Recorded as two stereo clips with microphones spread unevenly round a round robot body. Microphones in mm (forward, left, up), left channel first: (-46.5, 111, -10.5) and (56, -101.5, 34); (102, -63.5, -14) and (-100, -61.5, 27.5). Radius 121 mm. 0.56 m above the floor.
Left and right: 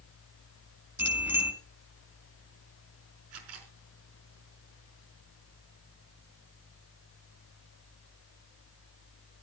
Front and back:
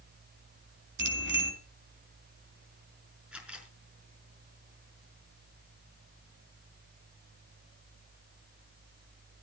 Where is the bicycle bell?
145° right, 3.5 m.